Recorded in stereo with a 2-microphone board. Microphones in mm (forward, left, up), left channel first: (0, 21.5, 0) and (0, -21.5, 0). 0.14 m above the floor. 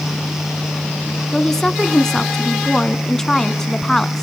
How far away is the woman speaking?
About 1.0 m.